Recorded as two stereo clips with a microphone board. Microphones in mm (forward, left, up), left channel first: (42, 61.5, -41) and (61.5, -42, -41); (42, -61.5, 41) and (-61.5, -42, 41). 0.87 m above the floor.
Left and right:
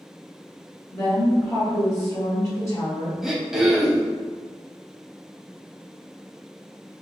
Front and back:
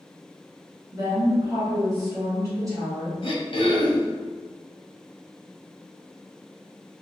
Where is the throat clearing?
5° left, 0.6 m.